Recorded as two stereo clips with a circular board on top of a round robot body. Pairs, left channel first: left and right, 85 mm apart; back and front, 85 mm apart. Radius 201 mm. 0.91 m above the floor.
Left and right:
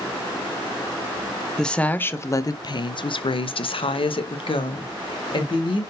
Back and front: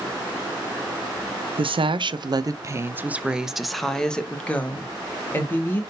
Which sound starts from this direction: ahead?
A woman speaking, at 1.6 s.